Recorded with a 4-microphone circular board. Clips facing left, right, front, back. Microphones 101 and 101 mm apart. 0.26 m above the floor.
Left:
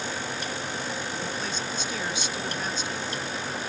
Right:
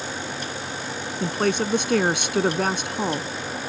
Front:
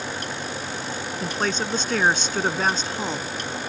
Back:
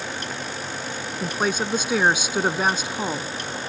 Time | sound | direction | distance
1.2 | a woman speaking | 100° right | ?